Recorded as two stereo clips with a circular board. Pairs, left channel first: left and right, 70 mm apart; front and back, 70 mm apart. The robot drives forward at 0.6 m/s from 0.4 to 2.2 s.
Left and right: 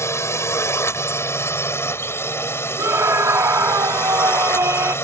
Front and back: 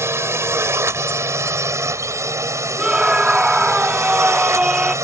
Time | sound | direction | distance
0.0 | a drone | 135° left | ?
2.8 | a scream | 110° right | ?